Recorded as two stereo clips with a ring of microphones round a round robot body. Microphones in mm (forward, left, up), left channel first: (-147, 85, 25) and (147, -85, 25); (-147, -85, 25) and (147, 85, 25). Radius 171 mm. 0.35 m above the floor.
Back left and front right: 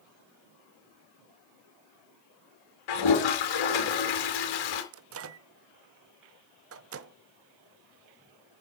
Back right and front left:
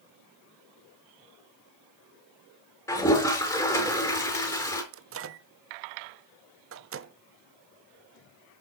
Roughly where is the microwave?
Ahead.